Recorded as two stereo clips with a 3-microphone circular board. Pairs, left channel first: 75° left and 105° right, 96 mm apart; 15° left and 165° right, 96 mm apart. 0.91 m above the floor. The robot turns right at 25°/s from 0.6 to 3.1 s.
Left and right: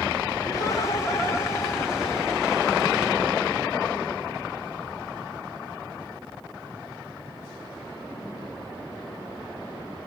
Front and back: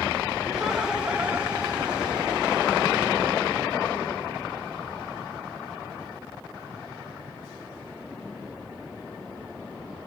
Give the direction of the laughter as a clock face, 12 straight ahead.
8 o'clock.